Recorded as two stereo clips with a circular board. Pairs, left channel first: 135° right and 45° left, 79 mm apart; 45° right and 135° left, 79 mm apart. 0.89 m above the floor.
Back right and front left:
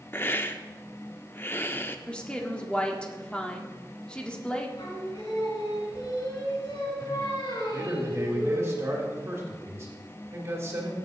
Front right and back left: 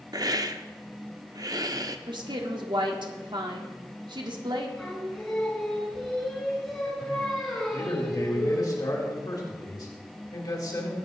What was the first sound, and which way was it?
A hiss, 165° left.